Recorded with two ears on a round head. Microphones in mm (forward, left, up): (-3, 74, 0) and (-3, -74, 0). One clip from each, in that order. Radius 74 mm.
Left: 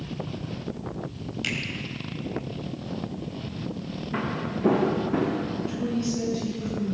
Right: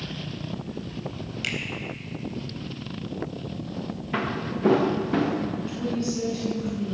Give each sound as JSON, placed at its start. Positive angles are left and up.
{"t": 1.4, "sound": "a finger snap", "side_deg": -5, "distance_m": 3.5}
{"t": 4.1, "sound": "footsteps", "side_deg": -80, "distance_m": 4.0}
{"t": 5.6, "sound": "a woman speaking", "side_deg": -10, "distance_m": 8.5}